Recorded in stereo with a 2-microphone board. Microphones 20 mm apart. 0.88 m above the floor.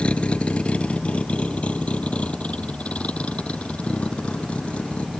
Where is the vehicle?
70° left (ahead or behind); by 5.2 s 80° left.